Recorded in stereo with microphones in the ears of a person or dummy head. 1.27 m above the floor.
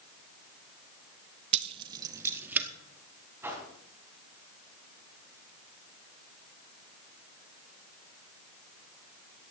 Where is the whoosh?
15° right (ahead or behind), 3.5 m.